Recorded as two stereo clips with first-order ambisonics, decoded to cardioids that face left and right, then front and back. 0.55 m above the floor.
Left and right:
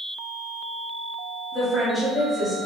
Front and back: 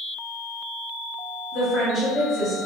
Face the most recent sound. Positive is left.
turn(degrees=20)